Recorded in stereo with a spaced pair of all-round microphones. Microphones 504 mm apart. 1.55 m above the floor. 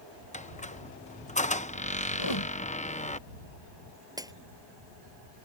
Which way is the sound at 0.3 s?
15° left (ahead or behind).